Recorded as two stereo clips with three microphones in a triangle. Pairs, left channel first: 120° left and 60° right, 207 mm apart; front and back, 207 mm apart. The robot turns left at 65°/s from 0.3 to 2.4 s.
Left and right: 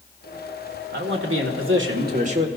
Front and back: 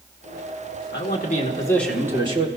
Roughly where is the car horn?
I don't hear a car horn.